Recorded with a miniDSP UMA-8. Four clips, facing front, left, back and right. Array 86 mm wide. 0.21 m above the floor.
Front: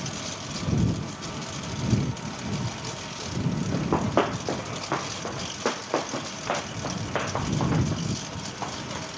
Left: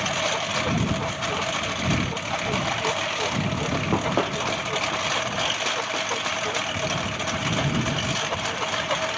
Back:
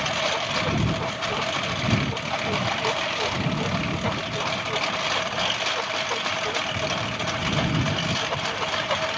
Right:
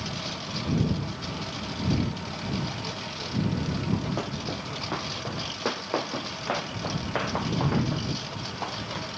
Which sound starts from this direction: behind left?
A lawn mower, at 0.0 s.